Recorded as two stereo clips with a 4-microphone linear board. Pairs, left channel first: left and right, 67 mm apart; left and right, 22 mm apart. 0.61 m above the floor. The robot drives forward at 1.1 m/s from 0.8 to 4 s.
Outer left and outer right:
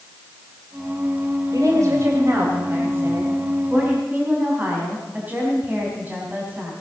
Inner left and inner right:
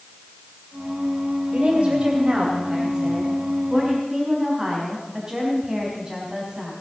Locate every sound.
1.5 s a woman speaking: 55° right (ahead or behind), 2.5 m; by 6.7 s 25° right (ahead or behind), 4.5 m